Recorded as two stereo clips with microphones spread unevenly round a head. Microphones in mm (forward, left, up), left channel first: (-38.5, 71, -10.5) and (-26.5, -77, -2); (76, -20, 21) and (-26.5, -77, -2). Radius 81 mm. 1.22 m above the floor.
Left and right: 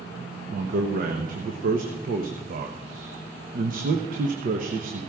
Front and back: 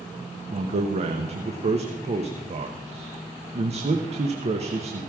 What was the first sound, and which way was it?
A man speaking, 120° right.